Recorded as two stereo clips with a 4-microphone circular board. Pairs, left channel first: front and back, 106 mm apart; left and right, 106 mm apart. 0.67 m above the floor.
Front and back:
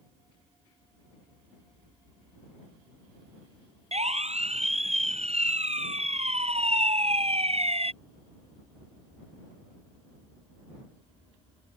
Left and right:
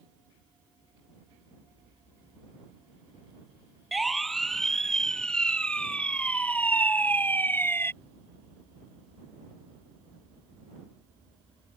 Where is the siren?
Straight behind; by 7.9 s 160° left.